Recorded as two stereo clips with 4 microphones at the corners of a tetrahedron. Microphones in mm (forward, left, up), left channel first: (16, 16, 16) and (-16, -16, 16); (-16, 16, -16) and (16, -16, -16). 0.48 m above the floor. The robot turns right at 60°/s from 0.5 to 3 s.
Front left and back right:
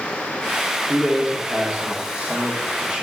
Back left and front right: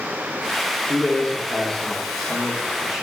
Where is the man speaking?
150° left, 0.7 m; by 3.0 s 85° right, 0.7 m.